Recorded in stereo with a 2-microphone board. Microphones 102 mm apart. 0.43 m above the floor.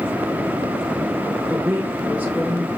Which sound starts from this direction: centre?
A woman speaking, at 1.5 s.